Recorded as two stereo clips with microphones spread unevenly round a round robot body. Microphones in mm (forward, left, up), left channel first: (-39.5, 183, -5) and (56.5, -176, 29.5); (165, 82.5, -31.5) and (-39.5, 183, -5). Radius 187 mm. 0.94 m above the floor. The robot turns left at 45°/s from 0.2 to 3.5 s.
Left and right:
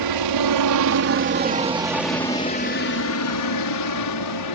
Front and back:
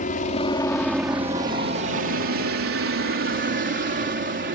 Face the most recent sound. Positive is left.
turn(degrees=125)